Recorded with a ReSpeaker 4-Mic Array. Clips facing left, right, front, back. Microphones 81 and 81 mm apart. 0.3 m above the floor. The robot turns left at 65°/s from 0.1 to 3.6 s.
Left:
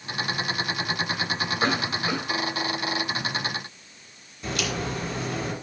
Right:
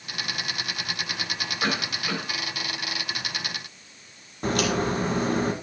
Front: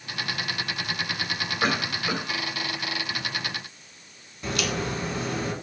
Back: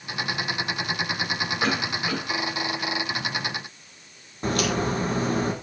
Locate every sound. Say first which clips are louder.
1.6 s a cough: left 2 dB, front 1 dB; 80° left, 1.7 m; by 2.2 s 40° left, 1.7 m
4.4 s a crack: right 5 dB, back 4 dB; 130° right, 1.9 m